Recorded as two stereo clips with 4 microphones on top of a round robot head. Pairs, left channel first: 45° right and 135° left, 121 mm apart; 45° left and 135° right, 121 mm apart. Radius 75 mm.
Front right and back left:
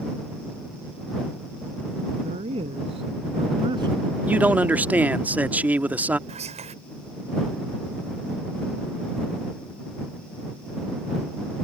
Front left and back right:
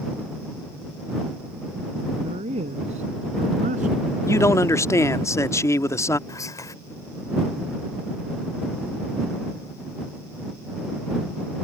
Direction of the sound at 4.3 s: 75° left.